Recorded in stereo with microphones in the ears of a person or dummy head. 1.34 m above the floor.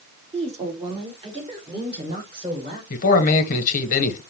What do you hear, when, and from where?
0.3 s a woman speaking: 30° right (ahead or behind), 1.6 m; by 2.8 s 25° right (ahead or behind), 3.5 m
2.9 s a man speaking: 45° left (ahead or behind), 1.0 m